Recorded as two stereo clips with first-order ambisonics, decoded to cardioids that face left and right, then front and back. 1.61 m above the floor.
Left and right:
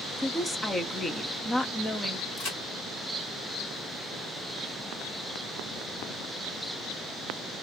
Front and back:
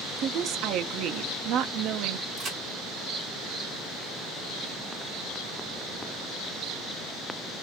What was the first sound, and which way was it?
A woman speaking, 165° left.